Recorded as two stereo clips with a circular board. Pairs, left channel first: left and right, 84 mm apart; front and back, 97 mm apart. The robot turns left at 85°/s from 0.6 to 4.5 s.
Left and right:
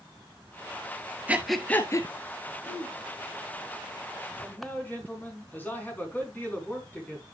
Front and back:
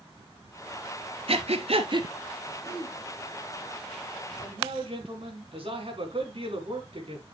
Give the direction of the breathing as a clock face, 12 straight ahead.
5 o'clock.